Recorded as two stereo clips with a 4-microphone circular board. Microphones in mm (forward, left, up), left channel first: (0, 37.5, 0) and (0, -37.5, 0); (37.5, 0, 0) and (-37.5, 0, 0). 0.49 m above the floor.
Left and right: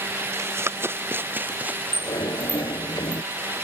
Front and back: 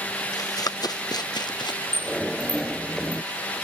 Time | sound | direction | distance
0.3 | running footsteps | 35° right | ?
1.9 | a sliding door | 85° left | ?